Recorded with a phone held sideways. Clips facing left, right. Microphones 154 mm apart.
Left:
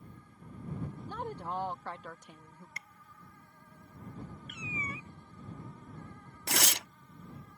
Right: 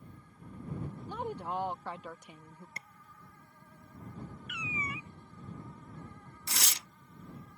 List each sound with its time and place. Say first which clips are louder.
1.1 s a woman speaking: right 2 dB; 10° right (ahead or behind)
2.8 s tapping: right 1 dB; 30° right (ahead or behind)
4.5 s a cat meowing: right 2 dB; 35° left (ahead or behind)
6.5 s tearing paper: left 8 dB; 70° left (ahead or behind)